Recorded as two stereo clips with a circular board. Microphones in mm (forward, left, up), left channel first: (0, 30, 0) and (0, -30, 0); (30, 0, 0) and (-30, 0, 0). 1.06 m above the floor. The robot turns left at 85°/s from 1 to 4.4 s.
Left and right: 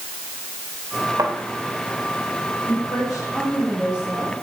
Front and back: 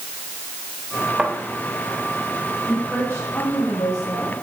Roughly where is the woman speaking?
Left.